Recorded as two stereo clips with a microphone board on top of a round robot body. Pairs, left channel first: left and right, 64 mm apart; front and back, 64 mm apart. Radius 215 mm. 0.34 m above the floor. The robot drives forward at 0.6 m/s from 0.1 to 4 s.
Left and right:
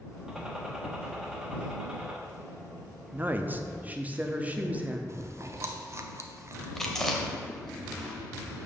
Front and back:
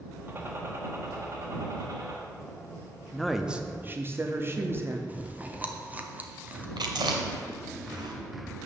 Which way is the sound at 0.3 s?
165° right.